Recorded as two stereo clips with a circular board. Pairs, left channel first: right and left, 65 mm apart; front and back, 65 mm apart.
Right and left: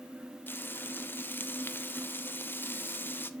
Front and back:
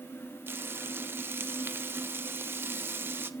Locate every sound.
0.5 s frying: 135° right, 0.7 m